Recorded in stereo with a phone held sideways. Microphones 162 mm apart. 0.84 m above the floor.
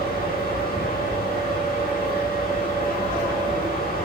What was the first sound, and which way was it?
A fan, 70° left (ahead or behind).